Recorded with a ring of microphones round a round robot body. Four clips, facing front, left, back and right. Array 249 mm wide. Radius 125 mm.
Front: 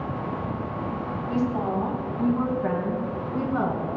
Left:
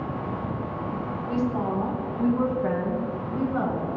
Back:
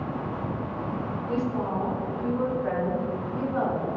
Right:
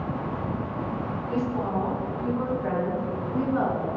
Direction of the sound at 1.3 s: 45° left.